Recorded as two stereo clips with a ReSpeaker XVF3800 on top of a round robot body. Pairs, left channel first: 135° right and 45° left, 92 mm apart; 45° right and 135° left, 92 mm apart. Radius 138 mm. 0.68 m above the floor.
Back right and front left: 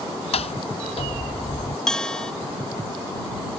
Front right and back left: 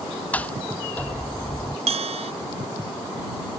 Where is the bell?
140° left.